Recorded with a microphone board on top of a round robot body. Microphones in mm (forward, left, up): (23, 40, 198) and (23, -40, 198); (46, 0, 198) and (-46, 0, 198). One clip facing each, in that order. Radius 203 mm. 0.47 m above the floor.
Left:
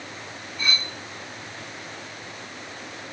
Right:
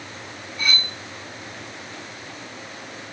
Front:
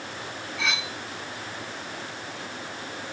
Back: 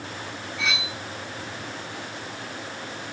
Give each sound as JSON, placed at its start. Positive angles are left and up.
{"t": 0.6, "sound": "cutlery clinking", "azimuth_deg": -90, "distance_m": 2.5}